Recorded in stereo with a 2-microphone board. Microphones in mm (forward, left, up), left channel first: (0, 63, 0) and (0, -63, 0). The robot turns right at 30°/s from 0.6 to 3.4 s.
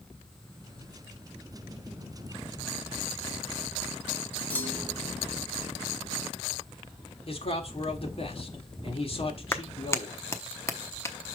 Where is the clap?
20° left (ahead or behind), 0.9 m.